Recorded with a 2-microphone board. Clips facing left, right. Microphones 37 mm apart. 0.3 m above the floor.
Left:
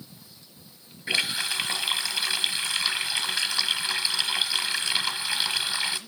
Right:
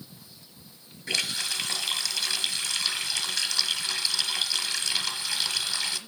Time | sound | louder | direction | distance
1.1 | a running tap | left 3 dB | 20° left (ahead or behind) | 1.1 m